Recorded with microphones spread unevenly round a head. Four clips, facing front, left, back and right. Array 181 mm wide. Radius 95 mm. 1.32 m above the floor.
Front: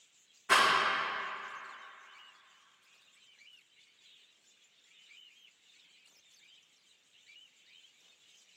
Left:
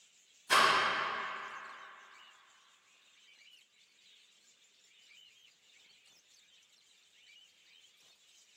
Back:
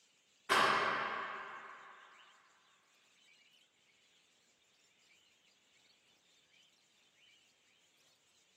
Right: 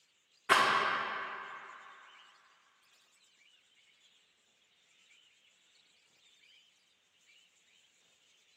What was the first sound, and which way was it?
A rattle, 65° right.